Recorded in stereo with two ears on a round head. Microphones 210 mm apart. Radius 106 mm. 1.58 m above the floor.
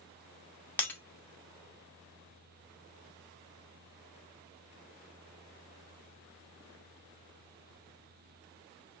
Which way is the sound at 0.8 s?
10° left (ahead or behind).